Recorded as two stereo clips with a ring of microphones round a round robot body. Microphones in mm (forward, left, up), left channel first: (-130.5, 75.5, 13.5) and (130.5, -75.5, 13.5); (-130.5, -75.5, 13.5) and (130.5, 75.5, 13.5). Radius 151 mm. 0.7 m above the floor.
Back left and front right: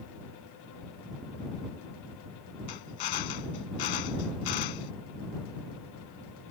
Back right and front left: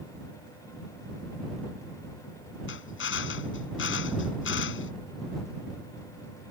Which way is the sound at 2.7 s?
155° left.